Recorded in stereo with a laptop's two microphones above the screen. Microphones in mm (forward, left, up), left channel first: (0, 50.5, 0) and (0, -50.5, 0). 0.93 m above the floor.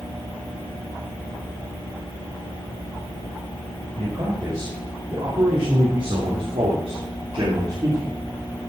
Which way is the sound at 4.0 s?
45° right (ahead or behind).